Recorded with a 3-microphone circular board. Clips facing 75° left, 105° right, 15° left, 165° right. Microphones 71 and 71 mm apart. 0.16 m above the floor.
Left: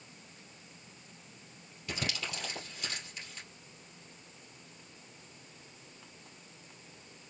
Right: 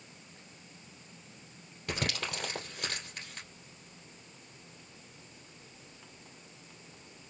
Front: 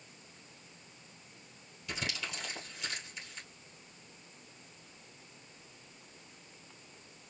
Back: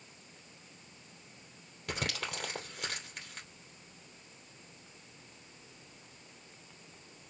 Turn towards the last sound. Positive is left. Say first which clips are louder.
# right 3 dB, back 2 dB
turn(degrees=-135)